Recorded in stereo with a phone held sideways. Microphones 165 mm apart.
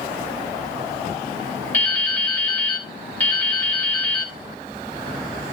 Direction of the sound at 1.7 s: 10° left (ahead or behind).